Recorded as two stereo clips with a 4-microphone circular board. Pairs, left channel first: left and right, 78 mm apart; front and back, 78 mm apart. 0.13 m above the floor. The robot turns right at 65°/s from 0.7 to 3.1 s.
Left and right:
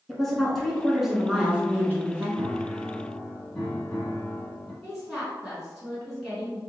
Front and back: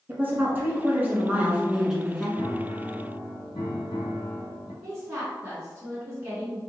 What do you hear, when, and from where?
0.1 s a woman speaking: 170° left, 1.1 m; by 2.3 s 85° right, 1.1 m
2.4 s a piano: 40° right, 1.2 m; by 4.7 s 10° left, 1.2 m
4.8 s a woman speaking: 165° right, 1.4 m